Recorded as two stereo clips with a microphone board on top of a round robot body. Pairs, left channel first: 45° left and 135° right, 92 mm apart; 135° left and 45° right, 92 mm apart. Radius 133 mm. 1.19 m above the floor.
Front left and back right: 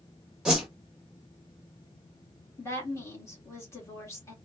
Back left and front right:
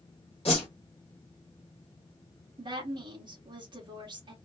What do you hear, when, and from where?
0.5 s a whoosh: 145° left, 0.5 m
2.6 s a woman speaking: 10° right, 1.8 m